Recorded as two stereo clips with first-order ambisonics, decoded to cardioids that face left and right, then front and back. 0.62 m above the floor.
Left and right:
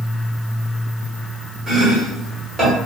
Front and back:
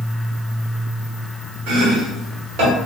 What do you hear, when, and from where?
1.7 s chopping: 175° right, 1.3 m